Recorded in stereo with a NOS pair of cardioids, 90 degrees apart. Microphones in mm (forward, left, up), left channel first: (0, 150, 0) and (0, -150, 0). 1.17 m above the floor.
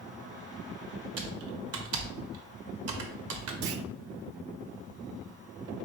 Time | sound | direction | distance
1.2 | typing on a keyboard | 50° right | 1.0 m
3.6 | a clunk | 50° right | 0.5 m